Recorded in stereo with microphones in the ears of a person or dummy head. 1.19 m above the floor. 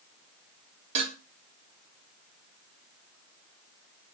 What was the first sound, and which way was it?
Dishes clattering, 35° right (ahead or behind).